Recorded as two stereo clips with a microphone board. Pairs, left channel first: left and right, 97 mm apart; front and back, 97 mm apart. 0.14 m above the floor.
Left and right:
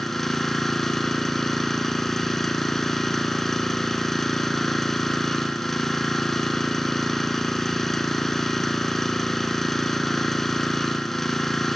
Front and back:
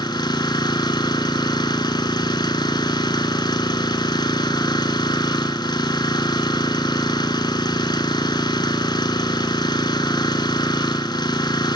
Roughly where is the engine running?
Ahead.